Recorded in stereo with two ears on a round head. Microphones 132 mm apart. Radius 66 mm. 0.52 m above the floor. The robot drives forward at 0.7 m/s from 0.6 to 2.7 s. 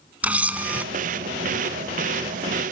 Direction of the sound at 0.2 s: 10° right (ahead or behind).